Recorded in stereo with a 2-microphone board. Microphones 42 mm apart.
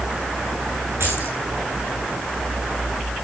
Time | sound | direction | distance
1.0 | keys jangling | 75° right (ahead or behind) | 8.5 m